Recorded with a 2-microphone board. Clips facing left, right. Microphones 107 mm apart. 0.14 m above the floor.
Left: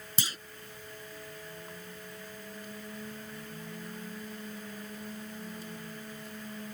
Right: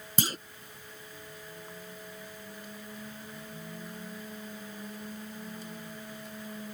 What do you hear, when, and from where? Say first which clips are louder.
0.2 s a clunk: right 7 dB; 45° right (ahead or behind)